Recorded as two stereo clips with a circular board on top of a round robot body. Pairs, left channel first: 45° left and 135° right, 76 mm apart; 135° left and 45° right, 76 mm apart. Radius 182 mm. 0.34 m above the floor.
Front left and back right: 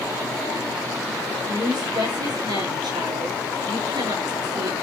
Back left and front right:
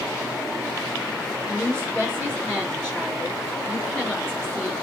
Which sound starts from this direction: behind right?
A woman speaking, at 1.5 s.